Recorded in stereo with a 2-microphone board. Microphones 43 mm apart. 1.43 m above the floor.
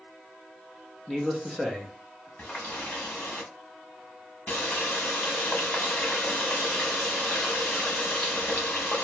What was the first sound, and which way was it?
A man speaking, 5° left (ahead or behind).